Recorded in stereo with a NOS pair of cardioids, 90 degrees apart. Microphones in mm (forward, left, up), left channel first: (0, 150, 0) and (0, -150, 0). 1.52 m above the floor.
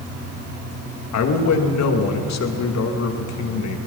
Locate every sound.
1.1 s a man speaking: 60° left, 2.5 m